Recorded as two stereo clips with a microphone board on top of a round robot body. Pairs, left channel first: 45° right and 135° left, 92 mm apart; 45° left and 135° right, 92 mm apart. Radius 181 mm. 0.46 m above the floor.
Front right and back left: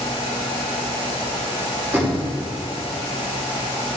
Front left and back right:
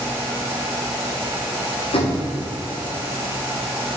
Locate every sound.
1.9 s knocking: 65° left, 1.8 m